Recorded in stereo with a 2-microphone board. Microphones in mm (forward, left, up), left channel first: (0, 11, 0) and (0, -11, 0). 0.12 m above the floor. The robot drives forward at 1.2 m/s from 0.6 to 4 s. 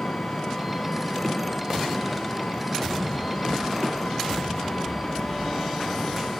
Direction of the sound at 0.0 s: 50° left (ahead or behind).